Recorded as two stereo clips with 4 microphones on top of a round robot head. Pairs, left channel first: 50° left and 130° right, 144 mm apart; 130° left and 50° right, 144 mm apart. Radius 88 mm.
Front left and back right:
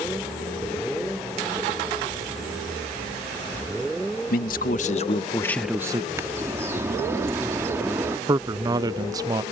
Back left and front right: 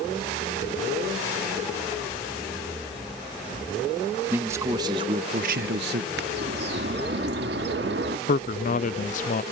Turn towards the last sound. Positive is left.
turn(degrees=165)